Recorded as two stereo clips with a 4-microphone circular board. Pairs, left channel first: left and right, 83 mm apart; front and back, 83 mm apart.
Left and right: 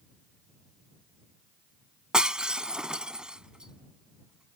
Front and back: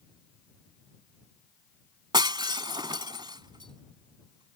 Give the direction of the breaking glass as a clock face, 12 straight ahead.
6 o'clock.